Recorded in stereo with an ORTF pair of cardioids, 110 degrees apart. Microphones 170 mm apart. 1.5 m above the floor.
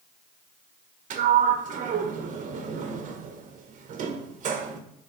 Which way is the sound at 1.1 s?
50° right.